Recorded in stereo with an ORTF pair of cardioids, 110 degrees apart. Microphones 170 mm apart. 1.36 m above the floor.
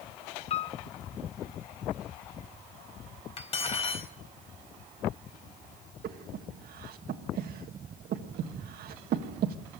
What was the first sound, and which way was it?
A piano, 35° left.